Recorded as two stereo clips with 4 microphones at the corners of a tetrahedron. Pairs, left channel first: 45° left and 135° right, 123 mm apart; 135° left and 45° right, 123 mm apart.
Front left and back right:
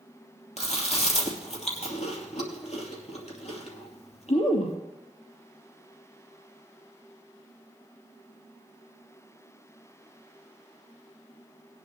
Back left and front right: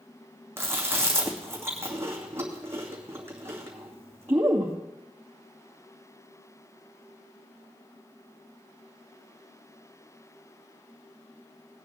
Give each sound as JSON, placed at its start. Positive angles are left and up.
{"t": 0.6, "sound": "chewing", "azimuth_deg": 25, "distance_m": 2.5}